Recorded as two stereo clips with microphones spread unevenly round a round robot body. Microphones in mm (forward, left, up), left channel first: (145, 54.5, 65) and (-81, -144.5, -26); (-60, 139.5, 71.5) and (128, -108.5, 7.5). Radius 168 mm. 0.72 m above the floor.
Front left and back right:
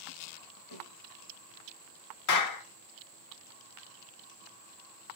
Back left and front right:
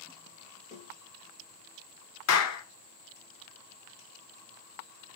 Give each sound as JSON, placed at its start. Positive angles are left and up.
{"t": 0.7, "sound": "a snare drum", "azimuth_deg": 55, "distance_m": 8.0}
{"t": 2.3, "sound": "a clap", "azimuth_deg": 85, "distance_m": 1.7}